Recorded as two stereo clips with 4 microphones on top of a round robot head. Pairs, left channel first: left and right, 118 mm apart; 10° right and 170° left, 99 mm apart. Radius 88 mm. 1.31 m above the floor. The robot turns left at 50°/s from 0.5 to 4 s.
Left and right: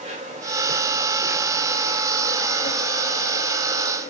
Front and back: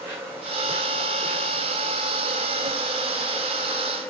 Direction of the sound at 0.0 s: 115° right.